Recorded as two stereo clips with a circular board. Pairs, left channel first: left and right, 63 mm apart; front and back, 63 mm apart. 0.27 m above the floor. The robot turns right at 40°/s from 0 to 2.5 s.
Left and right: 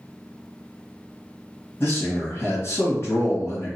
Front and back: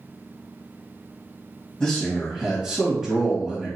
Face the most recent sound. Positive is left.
turn(degrees=100)